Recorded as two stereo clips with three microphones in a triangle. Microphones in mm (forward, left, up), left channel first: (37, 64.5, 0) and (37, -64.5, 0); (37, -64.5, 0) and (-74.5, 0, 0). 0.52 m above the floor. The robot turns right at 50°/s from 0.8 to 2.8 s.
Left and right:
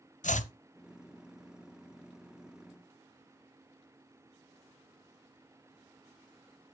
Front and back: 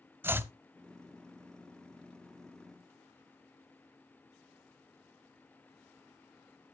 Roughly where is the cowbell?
I don't hear a cowbell.